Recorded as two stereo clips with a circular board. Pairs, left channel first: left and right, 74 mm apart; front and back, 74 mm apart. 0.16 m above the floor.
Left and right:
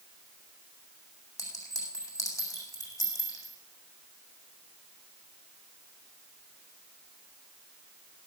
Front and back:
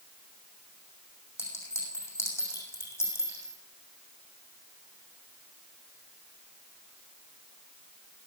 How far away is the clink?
About 6.5 m.